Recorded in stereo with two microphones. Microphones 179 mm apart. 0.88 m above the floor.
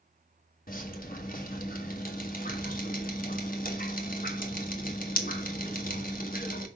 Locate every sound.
0.7 s dripping: 45° left (ahead or behind), 1.3 m